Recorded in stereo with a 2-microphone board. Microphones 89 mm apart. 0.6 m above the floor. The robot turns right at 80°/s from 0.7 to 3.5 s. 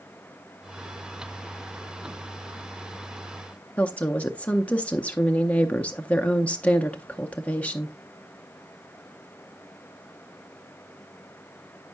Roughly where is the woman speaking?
Centre.